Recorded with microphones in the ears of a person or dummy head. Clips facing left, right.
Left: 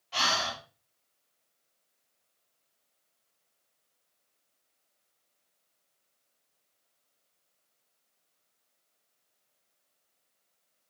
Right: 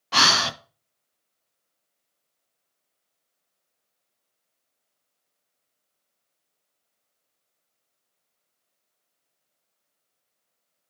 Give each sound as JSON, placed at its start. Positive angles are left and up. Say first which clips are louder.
{"t": 0.1, "sound": "breathing", "louder": "right 7 dB", "side_deg": -70, "distance_m": 0.7}